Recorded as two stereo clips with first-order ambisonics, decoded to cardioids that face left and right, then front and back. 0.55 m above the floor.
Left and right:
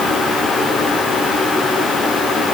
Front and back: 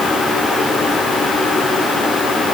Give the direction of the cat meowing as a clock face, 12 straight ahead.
No cat meowing in this recording.